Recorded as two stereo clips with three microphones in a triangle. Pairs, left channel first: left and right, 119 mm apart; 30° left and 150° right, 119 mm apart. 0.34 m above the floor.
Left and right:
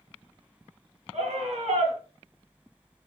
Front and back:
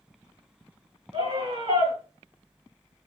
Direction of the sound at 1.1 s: 110° right.